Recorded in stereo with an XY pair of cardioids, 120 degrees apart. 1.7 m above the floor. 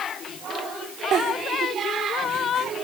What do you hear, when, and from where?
1.1 s a giggle: 55° right, 4 m